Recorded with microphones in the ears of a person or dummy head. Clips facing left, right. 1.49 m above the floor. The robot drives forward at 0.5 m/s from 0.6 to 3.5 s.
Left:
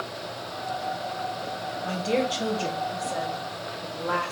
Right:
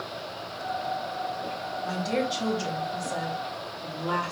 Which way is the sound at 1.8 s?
40° left (ahead or behind).